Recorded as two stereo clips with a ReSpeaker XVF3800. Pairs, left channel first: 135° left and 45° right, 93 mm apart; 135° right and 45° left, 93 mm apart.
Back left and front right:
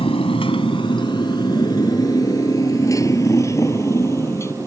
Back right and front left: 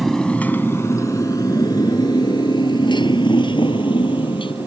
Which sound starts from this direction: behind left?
A motorcycle, at 0.0 s.